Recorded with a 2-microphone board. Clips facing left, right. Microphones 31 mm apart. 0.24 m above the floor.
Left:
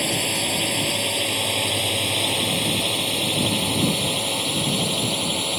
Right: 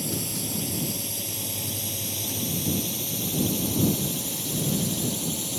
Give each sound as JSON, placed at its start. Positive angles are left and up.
{"t": 0.0, "sound": "a drone", "side_deg": 50}